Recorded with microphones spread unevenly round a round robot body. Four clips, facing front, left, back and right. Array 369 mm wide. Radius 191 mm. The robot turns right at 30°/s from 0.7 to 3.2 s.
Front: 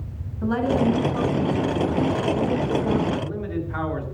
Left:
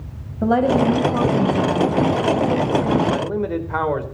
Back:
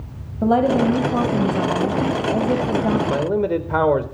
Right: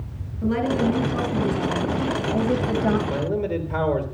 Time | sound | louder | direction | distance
0.4 | a woman speaking | left 5 dB, back 5 dB | 140° left | 6.5 m
3.1 | a man speaking | left 3 dB, back 8 dB | 165° left | 4 m